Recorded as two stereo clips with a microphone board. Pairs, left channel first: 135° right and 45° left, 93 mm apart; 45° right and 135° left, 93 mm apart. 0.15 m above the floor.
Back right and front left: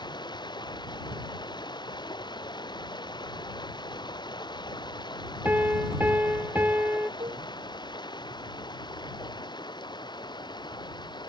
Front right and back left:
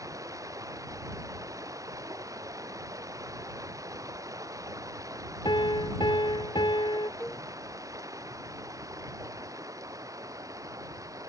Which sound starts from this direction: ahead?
A cowbell, at 7.2 s.